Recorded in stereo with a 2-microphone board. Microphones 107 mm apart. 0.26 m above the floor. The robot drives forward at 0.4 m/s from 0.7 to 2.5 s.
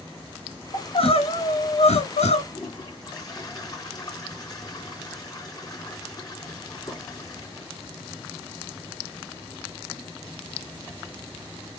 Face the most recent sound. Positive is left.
turn(degrees=40)  # may be behind; listen again after turning